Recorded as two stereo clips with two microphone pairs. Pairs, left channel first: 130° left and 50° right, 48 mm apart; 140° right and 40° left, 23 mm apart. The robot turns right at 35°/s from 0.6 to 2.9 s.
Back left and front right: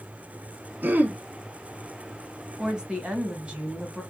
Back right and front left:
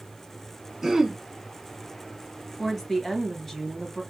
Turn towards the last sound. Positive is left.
turn(degrees=-65)